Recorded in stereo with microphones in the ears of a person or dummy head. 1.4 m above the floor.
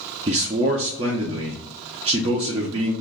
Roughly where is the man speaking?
Right.